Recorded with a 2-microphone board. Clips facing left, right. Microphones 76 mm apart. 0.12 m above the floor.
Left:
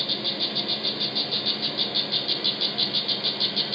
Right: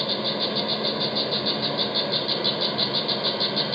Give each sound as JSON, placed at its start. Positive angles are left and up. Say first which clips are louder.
{"t": 0.0, "sound": "an insect", "louder": "right 6 dB", "side_deg": -40, "distance_m": 0.8}